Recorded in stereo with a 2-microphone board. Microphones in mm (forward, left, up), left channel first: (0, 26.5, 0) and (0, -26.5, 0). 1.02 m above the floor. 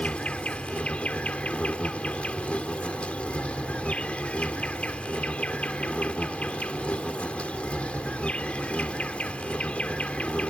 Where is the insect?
25° left (ahead or behind).